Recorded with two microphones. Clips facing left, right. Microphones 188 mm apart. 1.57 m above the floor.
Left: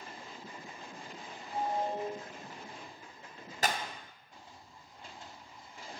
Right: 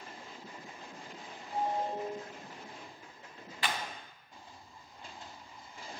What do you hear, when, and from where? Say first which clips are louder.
1.5 s a ringtone: even; 25° right (ahead or behind), 2.5 m
3.6 s a clap: left 3 dB; 40° left (ahead or behind), 0.6 m